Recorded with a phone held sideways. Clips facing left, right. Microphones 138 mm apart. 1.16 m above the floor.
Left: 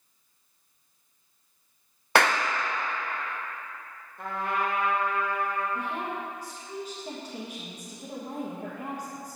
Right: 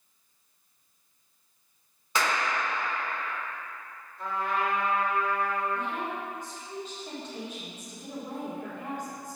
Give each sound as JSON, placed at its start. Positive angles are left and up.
{"t": 2.1, "sound": "a clap", "side_deg": 65, "distance_m": 0.5}
{"t": 4.2, "sound": "a trumpet", "side_deg": 60, "distance_m": 1.4}
{"t": 5.8, "sound": "a woman speaking", "side_deg": 35, "distance_m": 1.6}